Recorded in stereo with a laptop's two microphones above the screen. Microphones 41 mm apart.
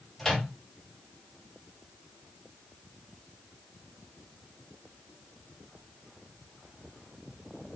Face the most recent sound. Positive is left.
turn(degrees=10)  # may be behind; listen again after turning